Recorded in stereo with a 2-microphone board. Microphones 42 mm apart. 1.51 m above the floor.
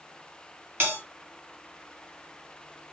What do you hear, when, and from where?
0.8 s a bell: 60° right (ahead or behind), 3 m